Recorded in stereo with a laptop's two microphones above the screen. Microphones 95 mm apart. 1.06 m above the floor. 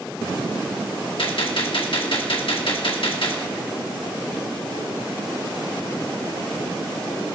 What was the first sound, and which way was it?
A gunshot, 70° left (ahead or behind).